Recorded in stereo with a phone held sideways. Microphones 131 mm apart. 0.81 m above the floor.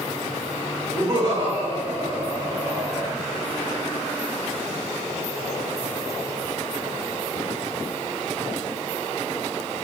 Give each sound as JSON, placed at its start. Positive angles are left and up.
{"t": 0.9, "sound": "laughter", "side_deg": -65, "distance_m": 2.0}